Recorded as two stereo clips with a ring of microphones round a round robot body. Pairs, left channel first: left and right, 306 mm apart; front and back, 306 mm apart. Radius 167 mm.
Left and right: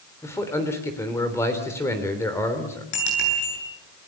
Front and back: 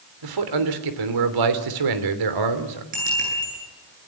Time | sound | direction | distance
0.2 | a man speaking | 175° left | 3 m
2.9 | a bicycle bell | 110° left | 9 m